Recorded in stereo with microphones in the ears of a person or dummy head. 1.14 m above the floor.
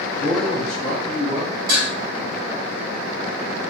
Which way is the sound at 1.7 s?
50° right (ahead or behind).